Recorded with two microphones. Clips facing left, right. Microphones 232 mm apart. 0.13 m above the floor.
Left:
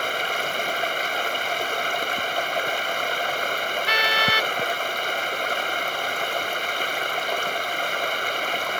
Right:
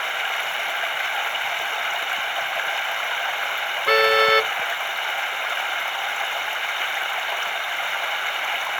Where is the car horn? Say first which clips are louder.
Right 14 dB; 55° right (ahead or behind).